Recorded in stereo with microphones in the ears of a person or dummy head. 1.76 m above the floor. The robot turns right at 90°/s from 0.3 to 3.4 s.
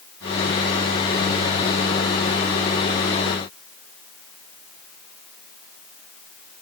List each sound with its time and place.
Only background noise.